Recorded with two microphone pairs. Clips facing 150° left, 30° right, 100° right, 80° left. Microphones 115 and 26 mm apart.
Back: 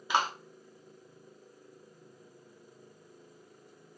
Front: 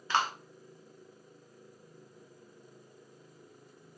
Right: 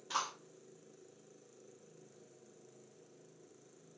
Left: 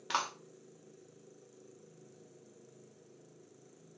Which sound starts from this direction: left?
A clap, at 0.1 s.